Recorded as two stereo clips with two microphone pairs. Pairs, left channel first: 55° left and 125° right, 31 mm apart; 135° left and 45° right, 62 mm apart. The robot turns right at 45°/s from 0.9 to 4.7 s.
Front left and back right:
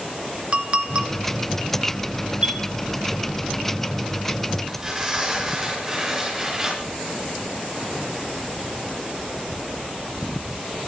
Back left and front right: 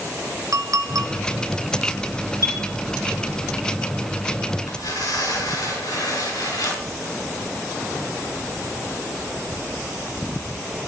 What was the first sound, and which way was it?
A clink, 75° right.